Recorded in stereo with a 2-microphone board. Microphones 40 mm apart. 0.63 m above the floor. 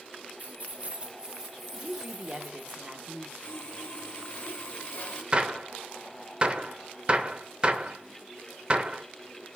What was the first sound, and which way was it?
Keys jangling, 40° right (ahead or behind).